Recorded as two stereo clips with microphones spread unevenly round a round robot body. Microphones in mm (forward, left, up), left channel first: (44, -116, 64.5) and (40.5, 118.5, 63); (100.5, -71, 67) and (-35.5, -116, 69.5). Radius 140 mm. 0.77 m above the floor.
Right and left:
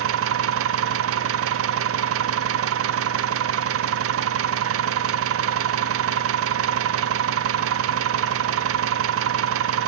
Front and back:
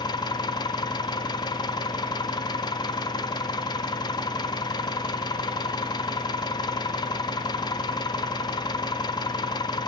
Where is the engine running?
80° left, 0.9 m.